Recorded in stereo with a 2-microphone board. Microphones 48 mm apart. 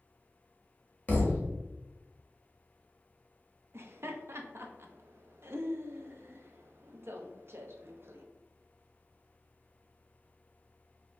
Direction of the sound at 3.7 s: 60° right (ahead or behind).